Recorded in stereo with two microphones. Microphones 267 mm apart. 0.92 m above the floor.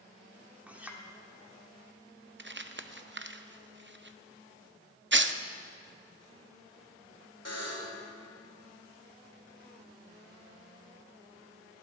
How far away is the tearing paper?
About 0.5 m.